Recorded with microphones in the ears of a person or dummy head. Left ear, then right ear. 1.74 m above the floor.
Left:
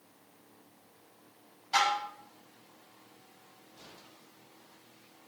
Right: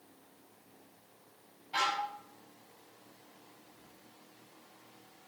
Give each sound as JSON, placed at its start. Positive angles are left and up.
{"t": 1.7, "sound": "dishes clattering", "side_deg": 55, "distance_m": 8.0}